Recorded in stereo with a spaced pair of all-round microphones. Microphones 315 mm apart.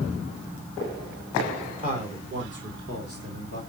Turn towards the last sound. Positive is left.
turn(degrees=-55)  # may be behind; listen again after turning